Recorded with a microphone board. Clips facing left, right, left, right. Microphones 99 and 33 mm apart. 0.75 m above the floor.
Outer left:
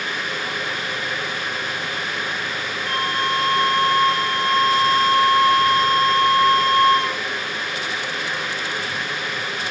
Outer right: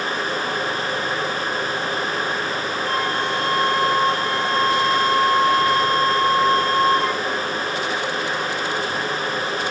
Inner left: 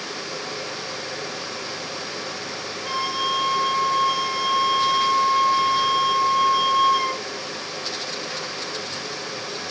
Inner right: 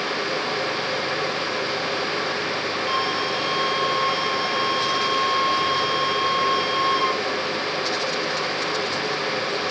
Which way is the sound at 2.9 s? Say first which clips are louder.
Outer left 1 dB, inner left 2 dB; 70° left (ahead or behind).